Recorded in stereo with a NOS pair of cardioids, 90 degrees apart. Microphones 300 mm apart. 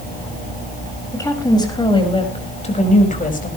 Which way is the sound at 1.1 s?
10° left.